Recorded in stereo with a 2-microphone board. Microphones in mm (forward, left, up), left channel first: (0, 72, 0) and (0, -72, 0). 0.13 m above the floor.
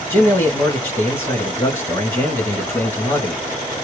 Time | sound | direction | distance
0.1 | a man speaking | 15° left (ahead or behind) | 1.5 m